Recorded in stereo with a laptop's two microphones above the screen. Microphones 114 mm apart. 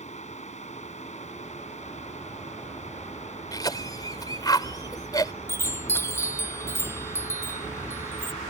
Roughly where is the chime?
Left.